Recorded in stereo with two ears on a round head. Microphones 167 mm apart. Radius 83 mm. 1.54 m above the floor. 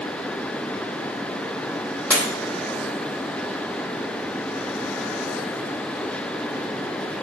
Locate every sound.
2.1 s breaking glass: 5° left (ahead or behind), 3.5 m